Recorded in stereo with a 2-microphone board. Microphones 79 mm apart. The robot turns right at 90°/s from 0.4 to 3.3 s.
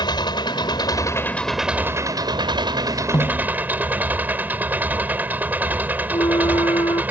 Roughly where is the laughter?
No laughter in this recording.